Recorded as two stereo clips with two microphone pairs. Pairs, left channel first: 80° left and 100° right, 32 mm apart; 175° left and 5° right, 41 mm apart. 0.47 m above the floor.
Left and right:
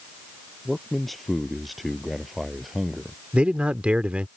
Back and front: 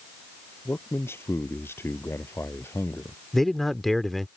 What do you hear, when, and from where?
0.7 s a man speaking: 165° left; by 3.2 s straight behind
3.3 s a man speaking: 100° right